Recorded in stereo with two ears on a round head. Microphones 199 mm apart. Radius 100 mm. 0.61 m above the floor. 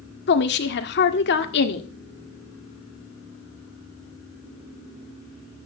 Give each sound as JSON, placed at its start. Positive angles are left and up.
{"t": 0.3, "sound": "a woman speaking", "side_deg": 50, "distance_m": 1.7}